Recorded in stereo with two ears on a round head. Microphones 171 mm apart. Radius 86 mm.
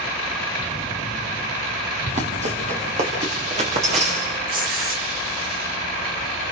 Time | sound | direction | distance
2.1 | running footsteps | 35° right (ahead or behind) | 5.5 m
4.5 | tearing paper | 50° right (ahead or behind) | 5.5 m